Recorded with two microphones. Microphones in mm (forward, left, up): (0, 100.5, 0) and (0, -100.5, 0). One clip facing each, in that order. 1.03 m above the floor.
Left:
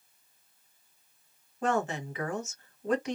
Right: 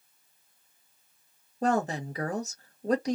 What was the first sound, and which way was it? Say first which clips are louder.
A woman speaking: right 2 dB; 40° right (ahead or behind).